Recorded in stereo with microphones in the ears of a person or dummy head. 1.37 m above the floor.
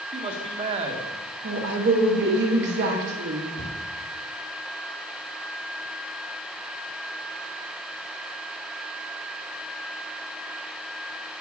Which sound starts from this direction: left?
A cupboard door, at 3.6 s.